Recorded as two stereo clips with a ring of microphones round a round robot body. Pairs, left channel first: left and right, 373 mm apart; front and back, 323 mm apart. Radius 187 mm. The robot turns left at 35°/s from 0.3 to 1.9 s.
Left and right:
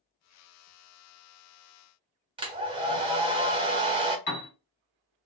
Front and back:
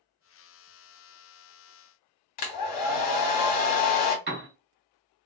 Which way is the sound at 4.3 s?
125° left.